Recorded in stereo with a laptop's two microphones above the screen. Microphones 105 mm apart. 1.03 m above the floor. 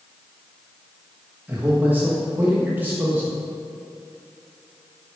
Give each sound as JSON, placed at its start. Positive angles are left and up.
{"t": 1.5, "sound": "a man speaking", "side_deg": -15, "distance_m": 1.3}